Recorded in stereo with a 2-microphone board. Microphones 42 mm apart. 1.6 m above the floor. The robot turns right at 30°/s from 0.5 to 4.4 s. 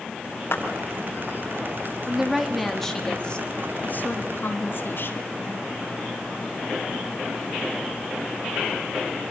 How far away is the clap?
About 6.5 m.